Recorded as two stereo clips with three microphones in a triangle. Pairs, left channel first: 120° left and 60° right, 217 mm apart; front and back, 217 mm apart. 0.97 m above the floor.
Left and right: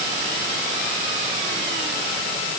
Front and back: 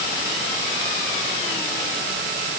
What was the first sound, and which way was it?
Only background noise.